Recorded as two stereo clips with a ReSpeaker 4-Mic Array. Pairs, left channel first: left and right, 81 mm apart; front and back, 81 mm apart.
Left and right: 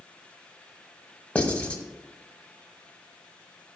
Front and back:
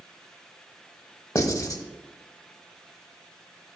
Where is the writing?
20° left, 0.9 m.